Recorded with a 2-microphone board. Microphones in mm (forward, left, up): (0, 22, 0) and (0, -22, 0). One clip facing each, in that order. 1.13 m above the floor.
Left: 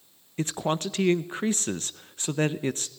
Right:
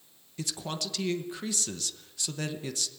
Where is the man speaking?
35° left (ahead or behind), 0.9 m.